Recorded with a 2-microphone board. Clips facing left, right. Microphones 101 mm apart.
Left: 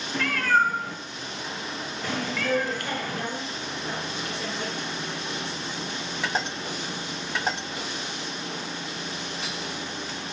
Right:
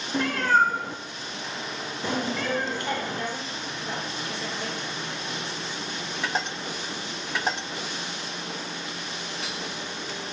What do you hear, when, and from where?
0.1 s a cat meowing: 25° right (ahead or behind), 1.1 m
2.4 s a woman speaking: 50° left (ahead or behind), 4.5 m